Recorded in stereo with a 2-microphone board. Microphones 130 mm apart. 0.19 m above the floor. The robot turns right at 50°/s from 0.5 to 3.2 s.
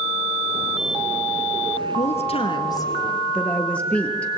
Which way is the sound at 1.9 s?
105° left.